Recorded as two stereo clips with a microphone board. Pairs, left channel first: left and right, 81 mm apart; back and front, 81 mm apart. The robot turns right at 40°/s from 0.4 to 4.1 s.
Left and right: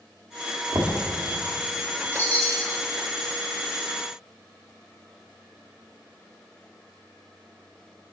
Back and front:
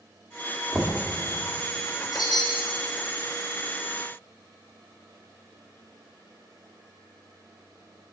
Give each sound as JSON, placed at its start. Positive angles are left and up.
{"t": 0.7, "sound": "knocking", "azimuth_deg": -55, "distance_m": 1.1}
{"t": 2.1, "sound": "a chime", "azimuth_deg": 150, "distance_m": 1.9}